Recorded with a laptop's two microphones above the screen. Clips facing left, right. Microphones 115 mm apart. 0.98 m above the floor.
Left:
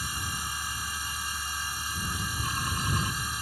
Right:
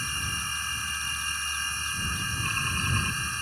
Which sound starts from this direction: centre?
A machine running, at 0.0 s.